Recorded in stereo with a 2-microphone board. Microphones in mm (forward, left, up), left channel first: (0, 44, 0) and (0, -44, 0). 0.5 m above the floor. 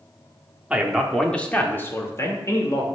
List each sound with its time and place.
0.7 s a man speaking: 10° right (ahead or behind), 0.8 m; by 2.9 s 40° left (ahead or behind), 1.4 m